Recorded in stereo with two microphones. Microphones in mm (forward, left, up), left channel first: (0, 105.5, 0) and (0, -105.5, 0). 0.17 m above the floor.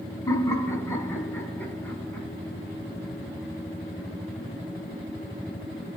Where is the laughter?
15° left (ahead or behind), 1.5 m; by 2.3 s 5° left (ahead or behind), 1.9 m.